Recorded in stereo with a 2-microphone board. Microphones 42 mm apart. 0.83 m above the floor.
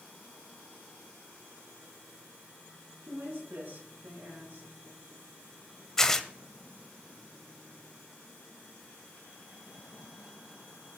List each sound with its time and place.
3.1 s a woman speaking: 55° right (ahead or behind), 8.5 m
6.0 s tearing paper: 10° left (ahead or behind), 1.0 m